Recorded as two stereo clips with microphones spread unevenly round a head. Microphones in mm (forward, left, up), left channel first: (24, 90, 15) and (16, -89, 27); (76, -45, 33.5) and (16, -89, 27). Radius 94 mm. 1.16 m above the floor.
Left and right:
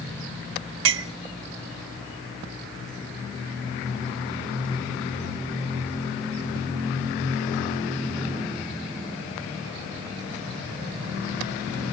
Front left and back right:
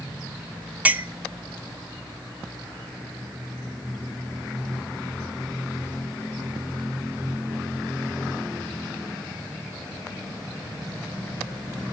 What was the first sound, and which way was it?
A clink, 70° right.